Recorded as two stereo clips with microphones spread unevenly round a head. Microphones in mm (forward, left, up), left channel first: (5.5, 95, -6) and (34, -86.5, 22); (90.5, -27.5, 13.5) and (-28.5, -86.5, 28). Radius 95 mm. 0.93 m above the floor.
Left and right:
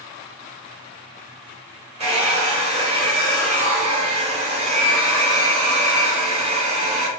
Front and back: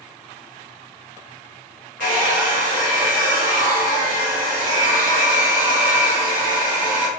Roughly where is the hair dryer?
Behind right.